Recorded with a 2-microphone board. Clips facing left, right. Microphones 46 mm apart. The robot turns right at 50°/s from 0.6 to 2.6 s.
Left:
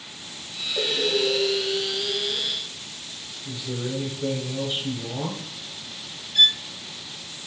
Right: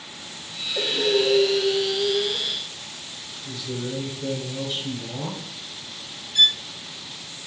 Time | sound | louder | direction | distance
0.8 | breathing | right 2 dB | 175° right | 2.0 m
3.5 | a man speaking | even | 15° left (ahead or behind) | 1.3 m
6.3 | a violin | even | 5° left (ahead or behind) | 0.6 m